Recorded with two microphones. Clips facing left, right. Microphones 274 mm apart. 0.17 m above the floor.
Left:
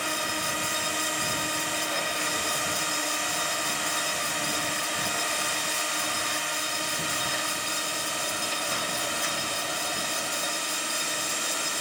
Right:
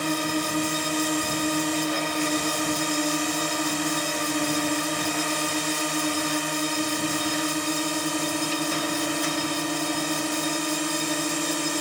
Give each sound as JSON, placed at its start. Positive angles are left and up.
{"t": 0.0, "sound": "a drone", "side_deg": -50}